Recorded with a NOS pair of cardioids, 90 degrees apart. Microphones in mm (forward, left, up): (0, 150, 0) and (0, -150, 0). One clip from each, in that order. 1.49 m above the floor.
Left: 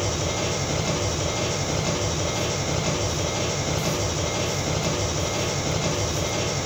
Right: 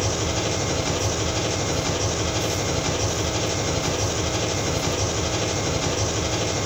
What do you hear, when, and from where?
0.0 s an engine running: 35° right, 3.5 m